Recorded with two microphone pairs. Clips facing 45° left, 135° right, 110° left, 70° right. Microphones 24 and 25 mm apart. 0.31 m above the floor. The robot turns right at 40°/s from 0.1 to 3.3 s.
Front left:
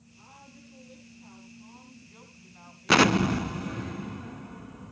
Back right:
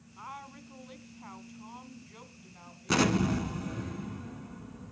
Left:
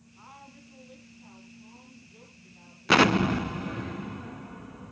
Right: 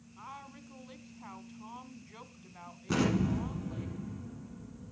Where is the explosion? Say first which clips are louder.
Front left 6 dB, left 9 dB; 95° left, 0.5 m; by 4.9 s 110° left, 0.5 m.